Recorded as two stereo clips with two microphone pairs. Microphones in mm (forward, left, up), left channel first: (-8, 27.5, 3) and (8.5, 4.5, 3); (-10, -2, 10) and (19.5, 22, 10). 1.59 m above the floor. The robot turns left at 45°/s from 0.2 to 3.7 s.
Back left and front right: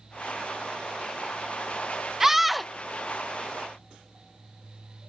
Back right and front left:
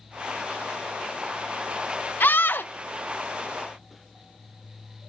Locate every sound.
2.2 s a scream: 125° right; by 2.7 s 150° right